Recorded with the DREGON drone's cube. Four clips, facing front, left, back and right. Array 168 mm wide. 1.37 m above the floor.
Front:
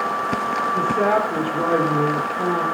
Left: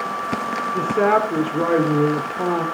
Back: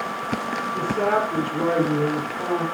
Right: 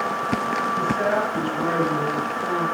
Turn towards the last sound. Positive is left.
turn(degrees=85)